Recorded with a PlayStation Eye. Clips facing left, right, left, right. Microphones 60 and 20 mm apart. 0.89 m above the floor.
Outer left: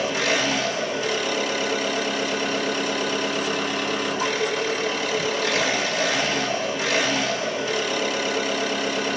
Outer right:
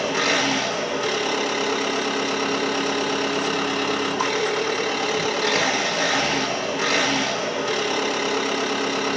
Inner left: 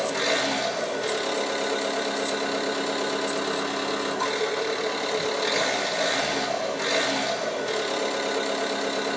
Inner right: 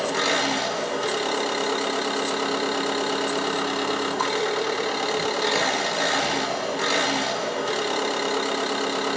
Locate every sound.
0.0 s an engine running: 50° right (ahead or behind), 1.5 m